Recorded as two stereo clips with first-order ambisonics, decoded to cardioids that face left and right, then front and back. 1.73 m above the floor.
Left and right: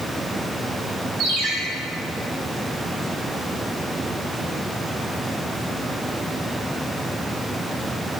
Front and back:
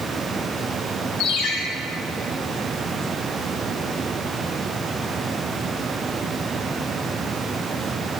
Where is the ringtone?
35° right, 7 m.